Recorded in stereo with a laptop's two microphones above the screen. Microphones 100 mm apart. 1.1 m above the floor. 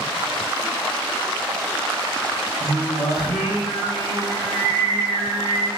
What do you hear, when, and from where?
2.6 s singing: 40° left (ahead or behind), 4 m